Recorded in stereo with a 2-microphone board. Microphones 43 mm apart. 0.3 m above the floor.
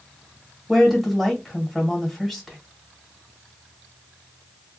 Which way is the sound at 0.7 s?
Centre (ahead or behind).